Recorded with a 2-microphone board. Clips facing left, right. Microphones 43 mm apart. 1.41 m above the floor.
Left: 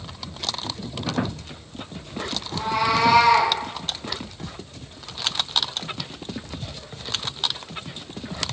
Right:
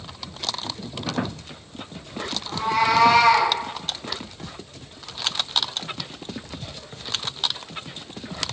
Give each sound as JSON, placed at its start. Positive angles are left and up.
{"t": 2.5, "sound": "a cat meowing", "side_deg": -55, "distance_m": 3.5}